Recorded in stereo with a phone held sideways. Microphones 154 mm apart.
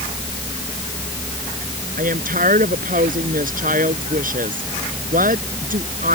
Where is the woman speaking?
65° right (ahead or behind).